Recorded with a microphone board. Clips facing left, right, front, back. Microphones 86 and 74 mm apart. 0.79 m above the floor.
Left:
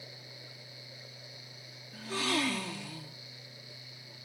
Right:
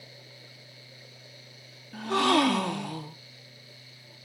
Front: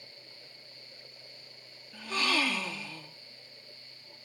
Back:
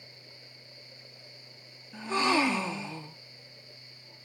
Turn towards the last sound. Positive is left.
turn(degrees=-115)